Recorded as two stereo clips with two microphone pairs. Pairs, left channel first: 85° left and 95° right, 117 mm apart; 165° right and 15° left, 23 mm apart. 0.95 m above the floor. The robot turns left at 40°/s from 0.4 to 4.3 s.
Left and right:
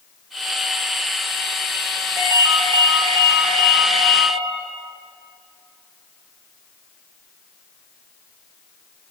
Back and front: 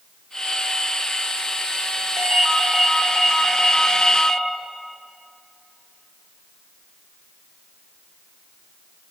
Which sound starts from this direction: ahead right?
A ringtone, at 2.2 s.